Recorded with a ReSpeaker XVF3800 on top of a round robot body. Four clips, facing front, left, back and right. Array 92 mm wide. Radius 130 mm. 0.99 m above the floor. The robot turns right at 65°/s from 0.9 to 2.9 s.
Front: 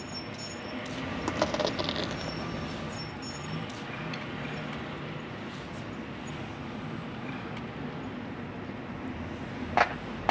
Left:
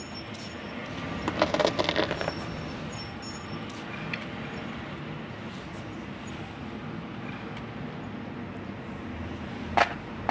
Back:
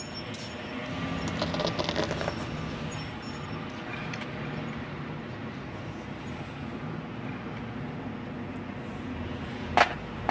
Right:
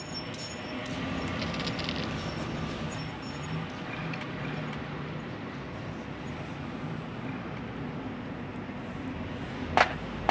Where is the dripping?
110° left.